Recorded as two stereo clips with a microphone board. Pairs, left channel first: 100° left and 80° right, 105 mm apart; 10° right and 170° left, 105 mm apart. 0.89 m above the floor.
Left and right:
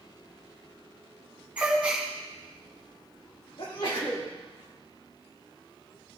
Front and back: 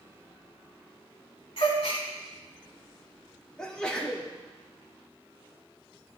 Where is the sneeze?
70° left, 2 m.